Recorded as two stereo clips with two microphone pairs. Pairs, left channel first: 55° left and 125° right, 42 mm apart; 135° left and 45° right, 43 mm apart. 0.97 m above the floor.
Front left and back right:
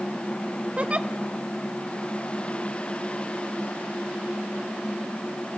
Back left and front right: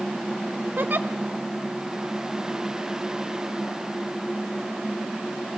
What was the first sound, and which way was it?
A giggle, 75° right.